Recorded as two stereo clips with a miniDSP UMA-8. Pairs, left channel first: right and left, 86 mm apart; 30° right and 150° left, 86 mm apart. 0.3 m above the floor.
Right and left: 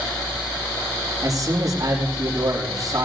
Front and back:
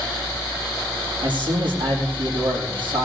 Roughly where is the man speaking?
Behind left.